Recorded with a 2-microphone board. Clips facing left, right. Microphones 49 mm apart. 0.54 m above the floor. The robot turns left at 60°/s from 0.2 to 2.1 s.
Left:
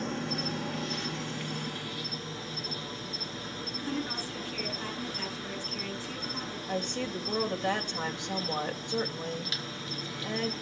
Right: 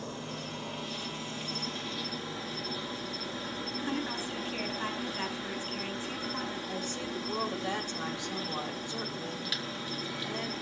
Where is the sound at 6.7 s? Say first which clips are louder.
Left 3 dB; 50° left (ahead or behind), 2.5 m.